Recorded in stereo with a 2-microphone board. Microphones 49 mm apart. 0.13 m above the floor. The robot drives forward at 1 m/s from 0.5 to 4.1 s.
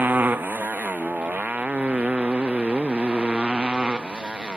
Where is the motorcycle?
40° right (ahead or behind); by 4.6 s 20° right (ahead or behind).